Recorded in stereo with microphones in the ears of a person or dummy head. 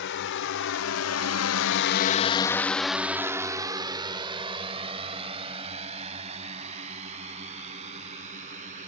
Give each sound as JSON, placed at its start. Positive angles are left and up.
{"t": 0.0, "sound": "a drone", "side_deg": 65}